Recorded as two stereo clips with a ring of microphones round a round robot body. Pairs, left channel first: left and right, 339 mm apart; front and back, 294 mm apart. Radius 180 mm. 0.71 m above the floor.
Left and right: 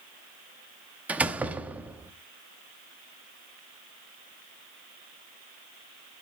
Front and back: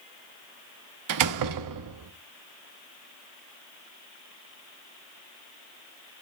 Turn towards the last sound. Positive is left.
turn(degrees=-175)